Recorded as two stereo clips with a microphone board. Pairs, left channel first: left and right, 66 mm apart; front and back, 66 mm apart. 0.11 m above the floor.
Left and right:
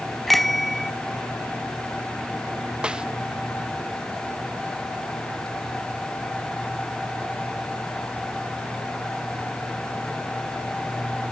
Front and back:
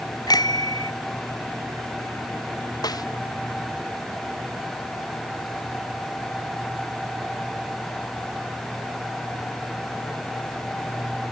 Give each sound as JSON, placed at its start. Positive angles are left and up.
{"t": 0.3, "sound": "a bicycle bell", "azimuth_deg": 5}
{"t": 2.8, "sound": "a snare drum", "azimuth_deg": -15}